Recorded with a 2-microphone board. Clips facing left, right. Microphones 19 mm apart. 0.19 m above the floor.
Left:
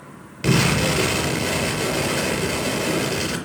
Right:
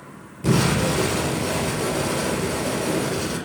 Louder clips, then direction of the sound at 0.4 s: Left 1 dB; 70° left (ahead or behind).